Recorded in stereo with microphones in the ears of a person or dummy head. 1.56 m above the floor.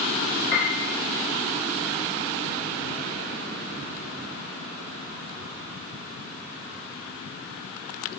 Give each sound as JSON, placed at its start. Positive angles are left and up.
{"t": 0.5, "sound": "a piano", "side_deg": -35, "distance_m": 1.3}